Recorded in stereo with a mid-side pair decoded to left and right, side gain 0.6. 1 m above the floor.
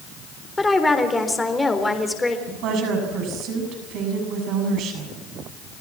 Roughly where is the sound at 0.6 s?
Ahead.